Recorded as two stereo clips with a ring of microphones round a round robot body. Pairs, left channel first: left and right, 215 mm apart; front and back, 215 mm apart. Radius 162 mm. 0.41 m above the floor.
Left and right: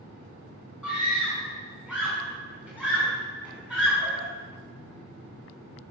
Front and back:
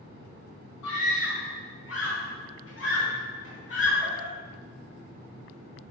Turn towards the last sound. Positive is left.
turn(degrees=5)